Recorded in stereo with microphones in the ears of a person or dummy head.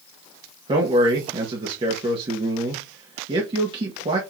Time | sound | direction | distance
0.7 | a man speaking | 30° right (ahead or behind) | 1.9 m